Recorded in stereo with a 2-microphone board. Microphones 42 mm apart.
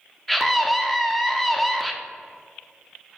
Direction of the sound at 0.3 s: 5° left (ahead or behind).